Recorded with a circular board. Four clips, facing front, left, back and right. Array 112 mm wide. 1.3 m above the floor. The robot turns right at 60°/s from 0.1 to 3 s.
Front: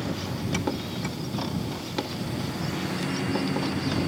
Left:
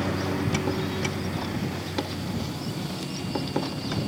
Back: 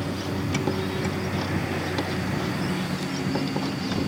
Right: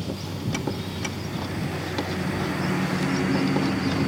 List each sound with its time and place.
0.0 s a lawn mower: 100° left; by 4.1 s 85° right